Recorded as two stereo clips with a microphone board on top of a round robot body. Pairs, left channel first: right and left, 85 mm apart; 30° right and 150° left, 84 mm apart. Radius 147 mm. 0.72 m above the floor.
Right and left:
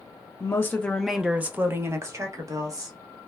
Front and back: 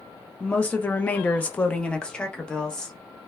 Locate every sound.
0.4 s a woman speaking: 90° right, 0.6 m; by 3.0 s 50° left, 1.2 m